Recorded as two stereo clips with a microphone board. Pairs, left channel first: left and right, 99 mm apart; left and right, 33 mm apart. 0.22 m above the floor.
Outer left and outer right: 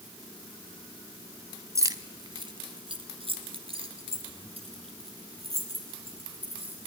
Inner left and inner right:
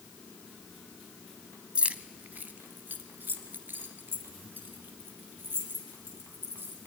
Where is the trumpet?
I don't hear a trumpet.